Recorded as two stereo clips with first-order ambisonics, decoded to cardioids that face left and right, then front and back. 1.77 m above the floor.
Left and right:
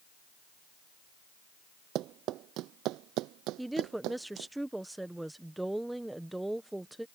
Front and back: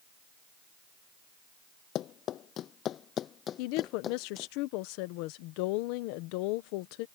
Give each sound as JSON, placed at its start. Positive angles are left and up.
{"t": 1.9, "sound": "running footsteps", "azimuth_deg": -50}
{"t": 3.6, "sound": "a woman speaking", "azimuth_deg": -5}